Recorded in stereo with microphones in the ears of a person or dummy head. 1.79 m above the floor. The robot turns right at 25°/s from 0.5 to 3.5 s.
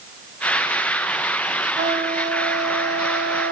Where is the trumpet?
135° right, 3.5 m; by 3.5 s 90° right, 3.5 m.